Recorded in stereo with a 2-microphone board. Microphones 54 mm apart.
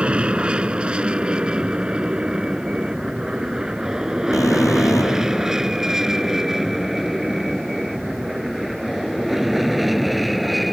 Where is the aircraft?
20° right (ahead or behind); by 10.7 s centre (ahead or behind).